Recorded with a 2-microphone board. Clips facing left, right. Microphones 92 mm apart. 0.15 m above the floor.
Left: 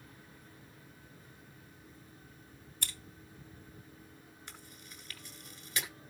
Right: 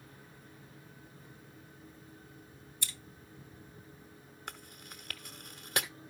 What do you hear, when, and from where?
2.8 s scissors: 50° left (ahead or behind), 2.5 m
4.5 s chewing: 55° right (ahead or behind), 0.9 m